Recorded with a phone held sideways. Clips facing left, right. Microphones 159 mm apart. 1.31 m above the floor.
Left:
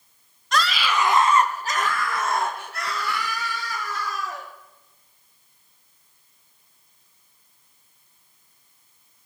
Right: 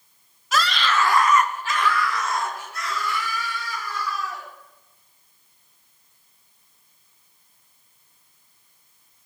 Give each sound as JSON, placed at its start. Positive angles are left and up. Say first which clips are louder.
{"t": 0.5, "sound": "a scream", "louder": "right 1 dB", "side_deg": -5, "distance_m": 1.4}